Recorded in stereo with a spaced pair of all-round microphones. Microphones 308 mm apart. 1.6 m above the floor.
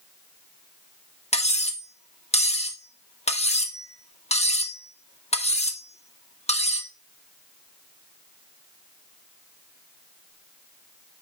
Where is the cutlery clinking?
20° left (ahead or behind), 1.1 m.